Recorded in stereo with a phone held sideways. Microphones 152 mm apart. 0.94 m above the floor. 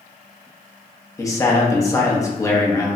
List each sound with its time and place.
1.2 s a man speaking: 20° left (ahead or behind), 0.8 m